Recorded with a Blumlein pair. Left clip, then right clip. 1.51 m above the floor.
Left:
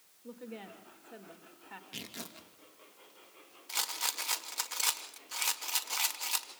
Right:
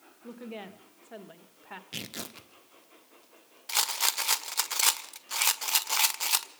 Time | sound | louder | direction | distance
0.2 | a woman speaking | right 4 dB | 35° right | 1.9 m
1.9 | tearing paper | right 5 dB | 40° right | 1.3 m
3.7 | a rattle | right 6 dB | 40° right | 1.0 m